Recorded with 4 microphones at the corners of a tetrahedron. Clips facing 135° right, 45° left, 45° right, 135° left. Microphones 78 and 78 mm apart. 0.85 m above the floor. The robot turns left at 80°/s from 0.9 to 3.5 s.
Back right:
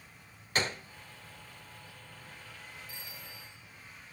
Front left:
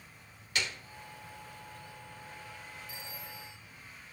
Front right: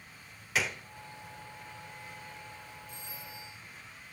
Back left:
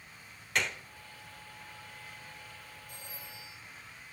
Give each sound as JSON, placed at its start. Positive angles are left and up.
{"t": 0.6, "sound": "a gunshot", "azimuth_deg": -130, "distance_m": 0.6}
{"t": 2.9, "sound": "a phone ringing", "azimuth_deg": 110, "distance_m": 5.5}